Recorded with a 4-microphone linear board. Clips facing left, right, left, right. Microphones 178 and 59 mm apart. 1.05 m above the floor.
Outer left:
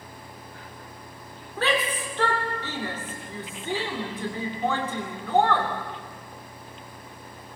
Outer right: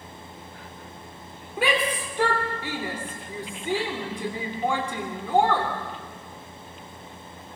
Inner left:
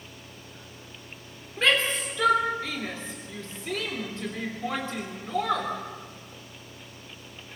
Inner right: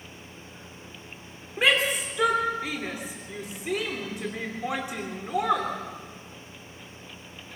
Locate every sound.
1.6 s a shout: 15° right (ahead or behind), 3 m